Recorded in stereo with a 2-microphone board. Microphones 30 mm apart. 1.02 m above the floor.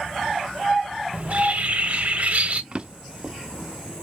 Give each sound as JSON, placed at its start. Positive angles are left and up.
{"t": 1.1, "sound": "a bird", "side_deg": -50, "distance_m": 0.5}
{"t": 2.7, "sound": "a drawer", "side_deg": -30, "distance_m": 0.5}